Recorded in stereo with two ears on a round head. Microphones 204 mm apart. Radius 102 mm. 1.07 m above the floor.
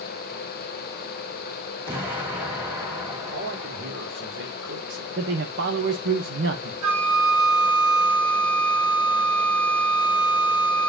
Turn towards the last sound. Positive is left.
turn(degrees=-80)